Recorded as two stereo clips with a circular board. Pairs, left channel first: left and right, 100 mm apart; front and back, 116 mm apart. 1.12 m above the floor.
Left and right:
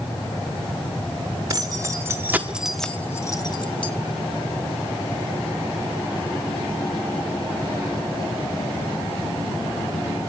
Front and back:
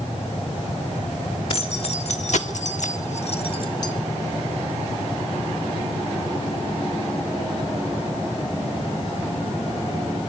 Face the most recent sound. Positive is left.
turn(degrees=60)